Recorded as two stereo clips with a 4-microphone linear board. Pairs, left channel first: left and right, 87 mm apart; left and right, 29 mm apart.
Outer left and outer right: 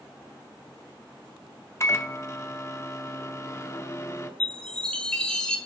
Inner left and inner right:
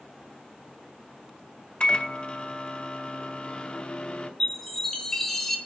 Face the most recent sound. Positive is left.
turn(degrees=10)  # may be behind; listen again after turning